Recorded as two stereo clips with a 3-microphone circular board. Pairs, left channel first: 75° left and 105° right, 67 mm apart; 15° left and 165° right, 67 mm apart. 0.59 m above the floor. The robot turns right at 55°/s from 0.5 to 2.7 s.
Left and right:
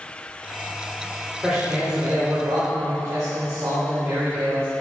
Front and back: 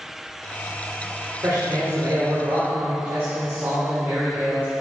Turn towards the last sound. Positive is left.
turn(degrees=-115)